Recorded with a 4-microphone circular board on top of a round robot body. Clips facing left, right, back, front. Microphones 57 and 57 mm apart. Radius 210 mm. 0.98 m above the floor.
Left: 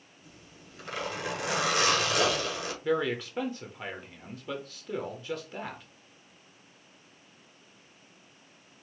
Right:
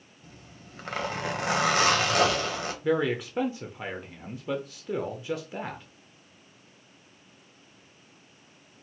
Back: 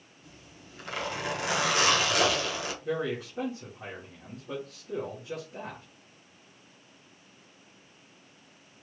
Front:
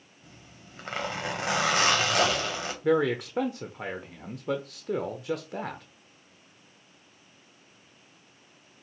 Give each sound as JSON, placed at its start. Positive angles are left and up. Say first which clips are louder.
{"t": 0.2, "sound": "a zipper", "louder": "right 3 dB, even", "azimuth_deg": -55, "distance_m": 1.9}
{"t": 2.8, "sound": "a man speaking", "louder": "right 3 dB, front 9 dB", "azimuth_deg": -15, "distance_m": 0.7}